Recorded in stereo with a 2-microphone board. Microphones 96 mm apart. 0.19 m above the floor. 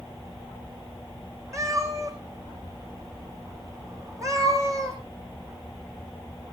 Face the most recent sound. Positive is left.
turn(degrees=-35)  # may be behind; listen again after turning